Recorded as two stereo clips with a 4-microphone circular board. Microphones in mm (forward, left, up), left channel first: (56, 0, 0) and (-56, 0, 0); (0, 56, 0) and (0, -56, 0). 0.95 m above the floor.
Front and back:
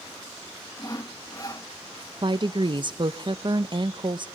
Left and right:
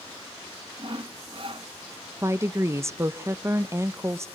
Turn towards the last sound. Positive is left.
turn(degrees=-150)